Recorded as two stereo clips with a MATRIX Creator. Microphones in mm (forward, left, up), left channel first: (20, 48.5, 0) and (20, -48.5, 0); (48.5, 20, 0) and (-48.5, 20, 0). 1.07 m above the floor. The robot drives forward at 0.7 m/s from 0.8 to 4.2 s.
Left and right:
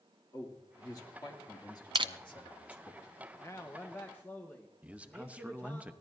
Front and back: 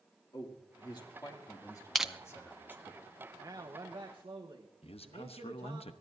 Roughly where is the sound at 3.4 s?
Behind left.